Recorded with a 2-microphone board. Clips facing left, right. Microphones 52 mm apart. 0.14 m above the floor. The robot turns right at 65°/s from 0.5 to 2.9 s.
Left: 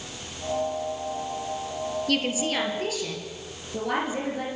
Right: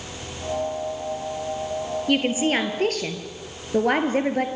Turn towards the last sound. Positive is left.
turn(degrees=-110)